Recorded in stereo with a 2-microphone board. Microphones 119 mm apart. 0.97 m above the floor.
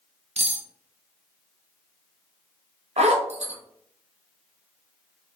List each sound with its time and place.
0.4 s cutlery clinking: 60° right (ahead or behind), 0.9 m
3.0 s a zipper: 70° right (ahead or behind), 0.9 m